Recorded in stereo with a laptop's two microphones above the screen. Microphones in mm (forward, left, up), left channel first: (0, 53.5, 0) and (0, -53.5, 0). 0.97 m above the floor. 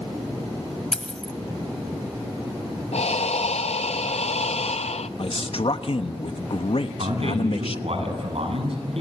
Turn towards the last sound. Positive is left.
turn(degrees=-65)  # may be behind; listen again after turning